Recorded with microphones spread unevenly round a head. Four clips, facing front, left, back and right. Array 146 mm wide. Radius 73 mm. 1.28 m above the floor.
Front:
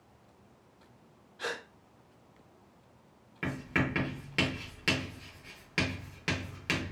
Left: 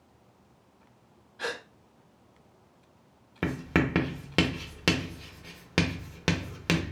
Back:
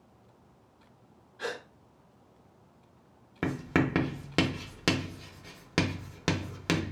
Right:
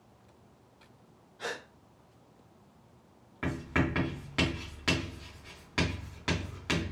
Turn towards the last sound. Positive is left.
turn(degrees=115)